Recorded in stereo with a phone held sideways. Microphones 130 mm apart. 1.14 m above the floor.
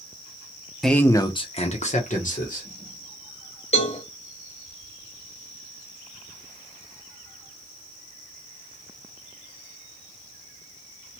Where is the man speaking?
Centre (ahead or behind), 0.6 m; by 2.7 s 70° left (ahead or behind), 1.3 m.